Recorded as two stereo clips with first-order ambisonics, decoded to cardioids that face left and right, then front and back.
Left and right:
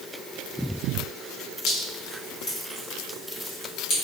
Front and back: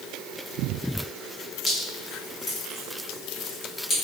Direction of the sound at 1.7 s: 50° left.